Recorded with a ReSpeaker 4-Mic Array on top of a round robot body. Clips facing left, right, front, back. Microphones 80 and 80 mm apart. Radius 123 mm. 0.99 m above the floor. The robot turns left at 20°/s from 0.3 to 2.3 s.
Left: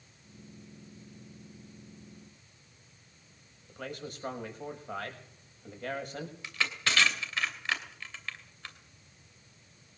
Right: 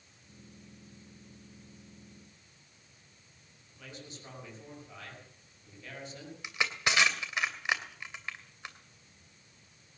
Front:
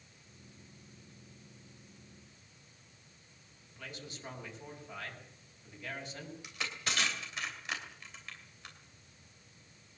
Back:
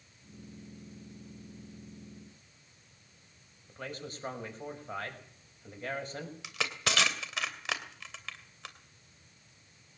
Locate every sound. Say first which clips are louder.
3.7 s a man speaking: left 8 dB, back 6 dB; 130° left, 5.5 m
6.4 s crushing: right 2 dB, back 5 dB; 165° right, 2.5 m